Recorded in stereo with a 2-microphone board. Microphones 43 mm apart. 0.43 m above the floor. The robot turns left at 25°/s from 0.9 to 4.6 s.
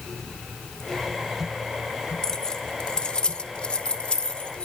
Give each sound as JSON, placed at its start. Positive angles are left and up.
{"t": 2.2, "sound": "keys jangling", "side_deg": 15, "distance_m": 0.8}